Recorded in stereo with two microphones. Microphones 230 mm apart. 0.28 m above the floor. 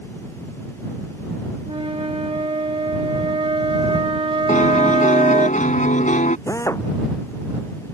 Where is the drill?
15° left (ahead or behind).